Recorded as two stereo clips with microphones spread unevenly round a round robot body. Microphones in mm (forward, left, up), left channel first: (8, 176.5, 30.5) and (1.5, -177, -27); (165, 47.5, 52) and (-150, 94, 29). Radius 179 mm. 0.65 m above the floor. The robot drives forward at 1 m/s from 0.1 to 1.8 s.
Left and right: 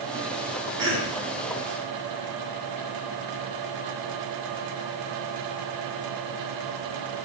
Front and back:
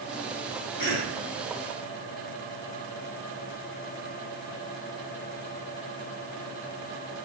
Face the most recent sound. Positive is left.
turn(degrees=-50)